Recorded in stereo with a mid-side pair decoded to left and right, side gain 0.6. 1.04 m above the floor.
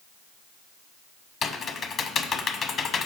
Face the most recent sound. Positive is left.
turn(degrees=40)